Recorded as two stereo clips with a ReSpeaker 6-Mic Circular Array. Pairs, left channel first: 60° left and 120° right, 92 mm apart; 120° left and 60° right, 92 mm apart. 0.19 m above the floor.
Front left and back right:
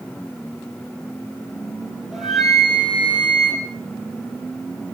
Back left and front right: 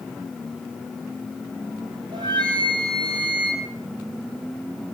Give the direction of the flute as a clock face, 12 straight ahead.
1 o'clock.